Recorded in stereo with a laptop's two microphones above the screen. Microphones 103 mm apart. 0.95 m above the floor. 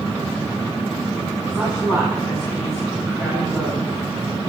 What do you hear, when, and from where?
1.5 s a woman speaking: 40° left (ahead or behind), 7.5 m